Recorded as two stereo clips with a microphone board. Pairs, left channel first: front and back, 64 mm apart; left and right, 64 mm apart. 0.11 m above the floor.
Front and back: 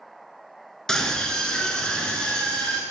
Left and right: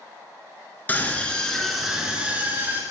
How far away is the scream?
About 1.1 m.